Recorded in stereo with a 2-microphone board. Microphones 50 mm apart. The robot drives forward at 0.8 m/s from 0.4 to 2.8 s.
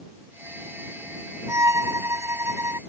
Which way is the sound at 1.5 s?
80° right.